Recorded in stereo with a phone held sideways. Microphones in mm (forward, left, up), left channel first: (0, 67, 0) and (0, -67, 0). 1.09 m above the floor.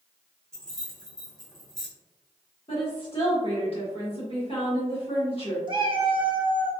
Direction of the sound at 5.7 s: 35° right (ahead or behind).